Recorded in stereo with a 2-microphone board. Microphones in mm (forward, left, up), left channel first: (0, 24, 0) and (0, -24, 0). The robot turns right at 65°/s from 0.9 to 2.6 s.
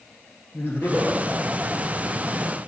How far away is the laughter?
About 3 m.